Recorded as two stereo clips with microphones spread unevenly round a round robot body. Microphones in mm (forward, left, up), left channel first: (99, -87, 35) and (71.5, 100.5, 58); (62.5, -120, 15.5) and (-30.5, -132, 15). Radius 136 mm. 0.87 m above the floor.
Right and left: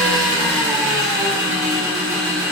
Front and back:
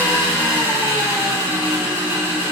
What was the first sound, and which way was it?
An engine running, 115° left.